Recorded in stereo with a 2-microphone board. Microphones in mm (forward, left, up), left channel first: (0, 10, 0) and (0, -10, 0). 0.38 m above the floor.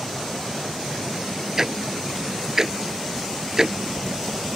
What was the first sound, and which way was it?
Ticking, 30° right (ahead or behind).